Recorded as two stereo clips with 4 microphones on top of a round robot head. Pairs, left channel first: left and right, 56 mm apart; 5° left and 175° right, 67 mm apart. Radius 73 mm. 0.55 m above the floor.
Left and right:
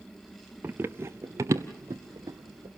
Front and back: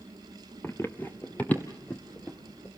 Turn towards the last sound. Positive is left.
turn(degrees=-65)